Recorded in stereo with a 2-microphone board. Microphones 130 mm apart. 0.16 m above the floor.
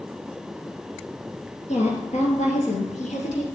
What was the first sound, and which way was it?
A woman speaking, 65° left (ahead or behind).